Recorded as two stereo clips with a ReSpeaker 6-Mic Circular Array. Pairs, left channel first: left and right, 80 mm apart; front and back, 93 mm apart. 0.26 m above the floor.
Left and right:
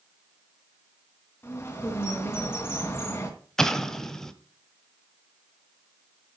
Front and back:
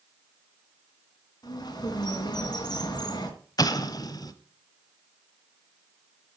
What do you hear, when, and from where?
1.4 s a bird: 30° left, 2.5 m
3.6 s an explosion: 10° left, 1.0 m